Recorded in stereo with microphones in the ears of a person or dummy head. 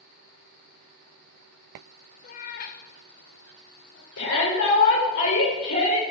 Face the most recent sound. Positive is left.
turn(degrees=80)